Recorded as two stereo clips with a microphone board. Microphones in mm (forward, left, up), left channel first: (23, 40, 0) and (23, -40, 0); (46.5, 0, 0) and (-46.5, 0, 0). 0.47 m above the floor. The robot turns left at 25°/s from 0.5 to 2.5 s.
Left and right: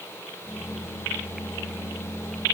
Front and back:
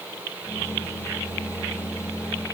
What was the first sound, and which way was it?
Only background noise.